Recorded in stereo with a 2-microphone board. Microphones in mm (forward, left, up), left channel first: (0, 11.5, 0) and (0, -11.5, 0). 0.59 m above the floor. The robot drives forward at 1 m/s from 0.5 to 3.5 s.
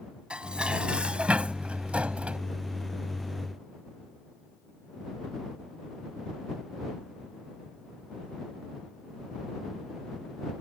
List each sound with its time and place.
0.3 s dishes clattering: 55° right (ahead or behind); by 2.4 s 75° right (ahead or behind)